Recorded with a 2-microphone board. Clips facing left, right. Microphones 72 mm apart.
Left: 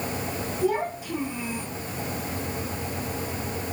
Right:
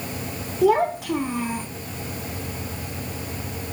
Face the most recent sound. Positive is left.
turn(degrees=-40)  # may be behind; listen again after turning